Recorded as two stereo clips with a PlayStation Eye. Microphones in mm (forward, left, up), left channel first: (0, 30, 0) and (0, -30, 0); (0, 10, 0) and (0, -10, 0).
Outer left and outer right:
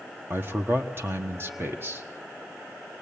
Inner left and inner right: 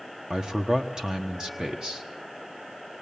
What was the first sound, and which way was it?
A man speaking, 40° right (ahead or behind).